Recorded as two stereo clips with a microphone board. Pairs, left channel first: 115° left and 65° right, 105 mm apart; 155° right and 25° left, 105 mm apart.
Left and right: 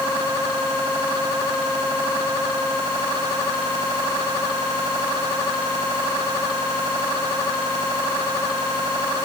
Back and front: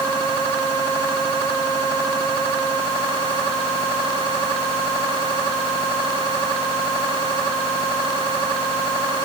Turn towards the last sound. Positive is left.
No sound to turn to.